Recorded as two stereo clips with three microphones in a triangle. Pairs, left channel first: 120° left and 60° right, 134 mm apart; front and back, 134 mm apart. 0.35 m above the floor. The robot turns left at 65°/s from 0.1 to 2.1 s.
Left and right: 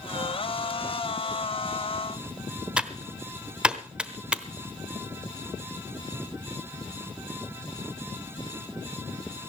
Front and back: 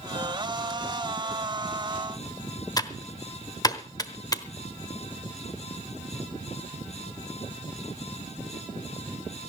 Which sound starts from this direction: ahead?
Typing on a keyboard, at 2.8 s.